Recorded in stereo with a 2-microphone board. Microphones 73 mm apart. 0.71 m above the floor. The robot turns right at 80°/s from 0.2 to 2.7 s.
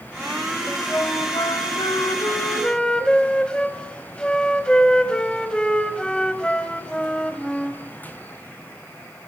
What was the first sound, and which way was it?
A flute, 5° left.